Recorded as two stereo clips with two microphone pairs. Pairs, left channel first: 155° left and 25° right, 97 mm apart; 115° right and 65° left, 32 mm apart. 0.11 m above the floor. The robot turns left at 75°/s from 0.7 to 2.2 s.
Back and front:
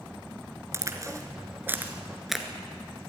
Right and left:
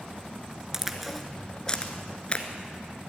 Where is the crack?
Straight ahead, 1.7 m; by 2.5 s 110° right, 1.7 m.